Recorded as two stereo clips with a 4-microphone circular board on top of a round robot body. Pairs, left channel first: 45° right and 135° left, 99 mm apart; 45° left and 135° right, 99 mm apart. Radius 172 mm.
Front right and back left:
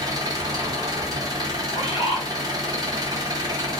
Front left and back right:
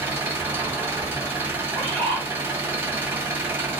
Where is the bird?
25° right, 1.4 m.